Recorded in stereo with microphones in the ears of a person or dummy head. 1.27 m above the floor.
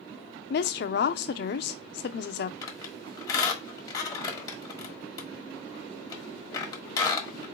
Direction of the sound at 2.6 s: 25° left (ahead or behind).